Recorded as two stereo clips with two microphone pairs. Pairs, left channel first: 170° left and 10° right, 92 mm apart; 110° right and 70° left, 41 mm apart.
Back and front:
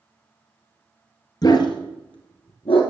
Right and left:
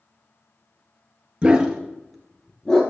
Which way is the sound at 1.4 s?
130° left.